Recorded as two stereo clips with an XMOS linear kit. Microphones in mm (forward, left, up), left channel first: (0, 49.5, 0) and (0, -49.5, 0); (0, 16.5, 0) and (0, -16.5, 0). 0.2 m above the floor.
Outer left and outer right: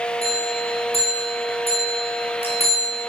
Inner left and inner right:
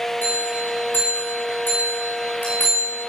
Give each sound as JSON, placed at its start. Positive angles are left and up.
{"t": 0.2, "sound": "a bell", "side_deg": 85, "distance_m": 5.0}